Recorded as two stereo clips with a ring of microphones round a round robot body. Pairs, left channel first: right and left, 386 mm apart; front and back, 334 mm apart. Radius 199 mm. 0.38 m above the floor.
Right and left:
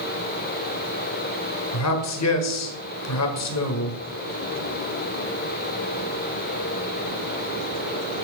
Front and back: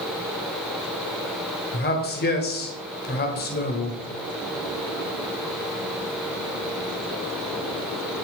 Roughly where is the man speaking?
Ahead right.